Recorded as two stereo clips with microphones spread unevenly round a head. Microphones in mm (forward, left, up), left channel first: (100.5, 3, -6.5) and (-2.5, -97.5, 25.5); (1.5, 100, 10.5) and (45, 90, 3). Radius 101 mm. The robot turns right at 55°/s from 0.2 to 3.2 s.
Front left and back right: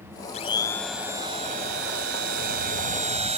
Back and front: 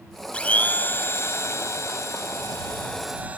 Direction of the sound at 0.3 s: 105° left.